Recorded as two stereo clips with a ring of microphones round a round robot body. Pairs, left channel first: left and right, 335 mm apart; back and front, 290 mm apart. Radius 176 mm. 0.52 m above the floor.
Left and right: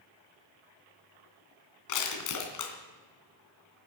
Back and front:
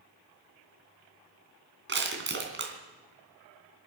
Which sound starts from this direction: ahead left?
Crushing, at 1.9 s.